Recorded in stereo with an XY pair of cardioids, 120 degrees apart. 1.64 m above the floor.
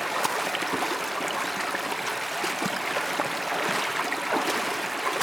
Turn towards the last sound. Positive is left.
turn(degrees=0)